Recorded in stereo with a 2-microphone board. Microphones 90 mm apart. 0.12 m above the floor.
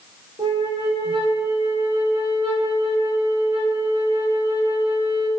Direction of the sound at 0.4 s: 70° right (ahead or behind).